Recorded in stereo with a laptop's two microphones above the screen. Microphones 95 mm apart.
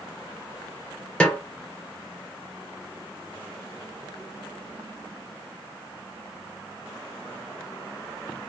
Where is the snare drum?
10° left (ahead or behind), 0.8 m.